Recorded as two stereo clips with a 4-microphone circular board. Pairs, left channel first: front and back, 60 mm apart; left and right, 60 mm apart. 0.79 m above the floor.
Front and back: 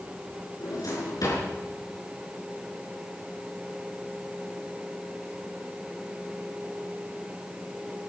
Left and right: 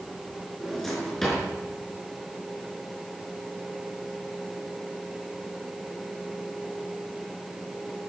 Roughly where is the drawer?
Ahead.